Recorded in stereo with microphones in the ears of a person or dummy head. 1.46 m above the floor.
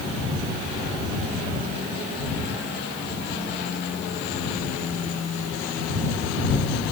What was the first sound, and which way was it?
Only background noise.